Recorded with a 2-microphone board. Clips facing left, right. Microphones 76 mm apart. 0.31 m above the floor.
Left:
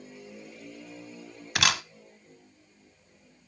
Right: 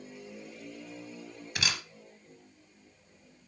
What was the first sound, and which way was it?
A camera shutter, 75° left (ahead or behind).